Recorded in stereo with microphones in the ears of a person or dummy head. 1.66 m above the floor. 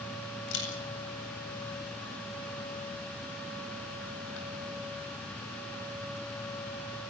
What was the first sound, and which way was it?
A camera shutter, 80° left.